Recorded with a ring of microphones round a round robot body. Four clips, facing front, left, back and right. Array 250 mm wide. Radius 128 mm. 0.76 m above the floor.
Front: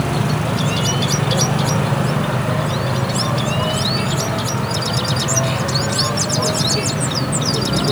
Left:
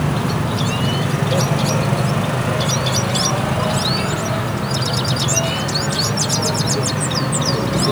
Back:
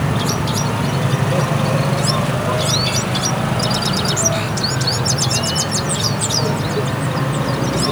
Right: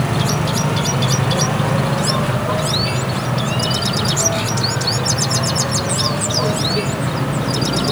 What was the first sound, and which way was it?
Only background noise.